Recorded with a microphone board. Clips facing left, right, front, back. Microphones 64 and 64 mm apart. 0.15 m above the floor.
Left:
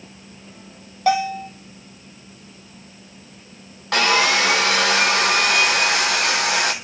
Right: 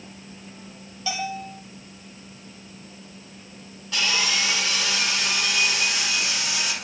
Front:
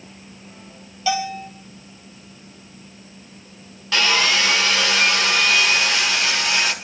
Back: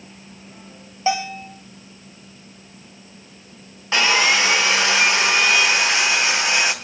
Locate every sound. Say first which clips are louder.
1.1 s a bell: left 10 dB, back 1 dB; 125° left, 3 m
3.9 s sawing: left 8 dB, back 2 dB; 115° left, 3.5 m